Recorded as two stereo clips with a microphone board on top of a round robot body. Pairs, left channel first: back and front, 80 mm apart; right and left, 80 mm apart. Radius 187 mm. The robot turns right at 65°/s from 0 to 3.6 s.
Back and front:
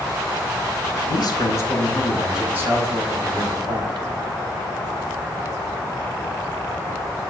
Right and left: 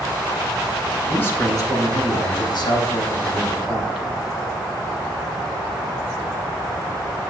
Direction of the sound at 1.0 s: 165° right.